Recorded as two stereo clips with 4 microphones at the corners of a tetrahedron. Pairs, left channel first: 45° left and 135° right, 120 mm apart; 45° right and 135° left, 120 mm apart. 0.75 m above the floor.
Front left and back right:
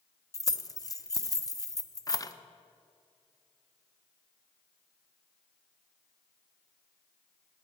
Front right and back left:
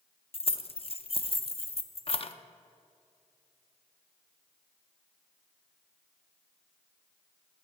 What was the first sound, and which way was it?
Keys jangling, 15° right.